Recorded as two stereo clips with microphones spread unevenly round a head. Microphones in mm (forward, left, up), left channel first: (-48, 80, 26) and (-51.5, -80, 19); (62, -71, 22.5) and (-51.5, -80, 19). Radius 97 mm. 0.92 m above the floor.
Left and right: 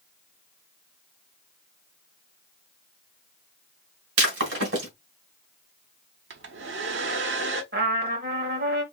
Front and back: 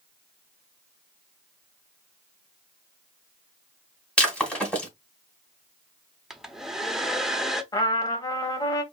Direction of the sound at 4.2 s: 75° right.